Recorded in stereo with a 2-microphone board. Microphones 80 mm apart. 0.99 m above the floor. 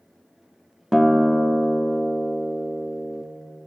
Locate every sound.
0.9 s a guitar: 5° right (ahead or behind), 0.8 m